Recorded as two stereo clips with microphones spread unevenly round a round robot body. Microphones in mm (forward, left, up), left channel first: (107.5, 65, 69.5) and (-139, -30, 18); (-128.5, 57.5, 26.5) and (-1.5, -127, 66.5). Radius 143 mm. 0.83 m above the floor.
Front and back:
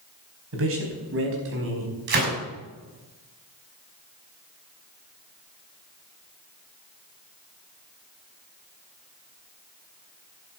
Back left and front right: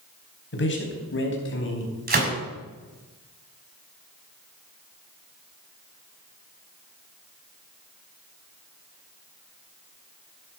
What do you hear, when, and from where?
0.5 s a man speaking: 160° left, 4.5 m
2.1 s a gunshot: 105° right, 5.5 m